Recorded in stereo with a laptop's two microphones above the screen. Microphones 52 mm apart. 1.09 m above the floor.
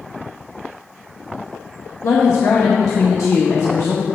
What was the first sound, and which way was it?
A woman speaking, 80° left.